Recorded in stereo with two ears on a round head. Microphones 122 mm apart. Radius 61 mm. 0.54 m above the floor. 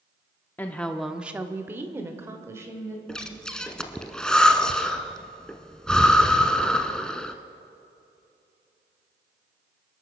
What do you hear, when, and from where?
0.6 s a woman speaking: 15° left (ahead or behind), 0.7 m; by 3.0 s 20° right (ahead or behind), 2.5 m
3.1 s breathing: 5° left (ahead or behind), 0.8 m